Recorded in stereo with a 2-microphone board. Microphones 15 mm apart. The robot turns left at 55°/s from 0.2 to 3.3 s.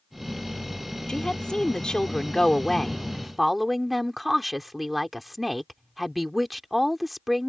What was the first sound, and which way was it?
A woman speaking, 115° left.